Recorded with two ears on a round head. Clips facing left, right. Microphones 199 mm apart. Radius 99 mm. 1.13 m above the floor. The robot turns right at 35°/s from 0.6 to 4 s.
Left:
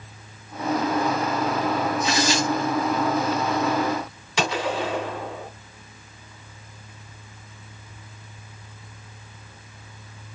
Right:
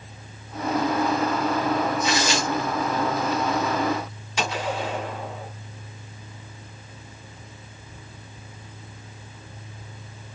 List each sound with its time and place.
2.0 s tearing paper: 65° right (ahead or behind), 1.7 m; by 3.3 s 25° right (ahead or behind), 1.7 m
4.4 s a gunshot: 60° left (ahead or behind), 1.4 m